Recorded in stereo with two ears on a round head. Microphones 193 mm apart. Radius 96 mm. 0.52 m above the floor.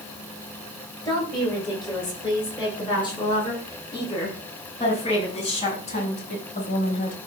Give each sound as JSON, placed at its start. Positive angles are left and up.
{"t": 1.1, "sound": "a woman speaking", "side_deg": 20, "distance_m": 9.5}